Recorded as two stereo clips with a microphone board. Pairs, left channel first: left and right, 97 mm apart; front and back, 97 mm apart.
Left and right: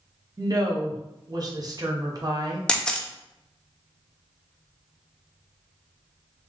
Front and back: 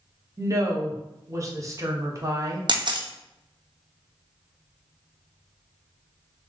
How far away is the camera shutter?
About 0.5 m.